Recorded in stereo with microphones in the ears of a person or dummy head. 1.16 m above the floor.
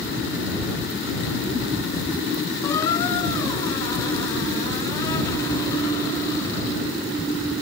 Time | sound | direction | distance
2.6 | a squeak | 15° left (ahead or behind) | ?